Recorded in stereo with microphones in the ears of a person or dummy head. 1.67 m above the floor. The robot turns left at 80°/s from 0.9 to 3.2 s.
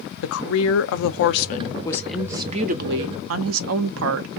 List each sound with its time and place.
0.2 s a woman speaking: 100° left, 0.6 m; by 4.3 s 85° right, 0.6 m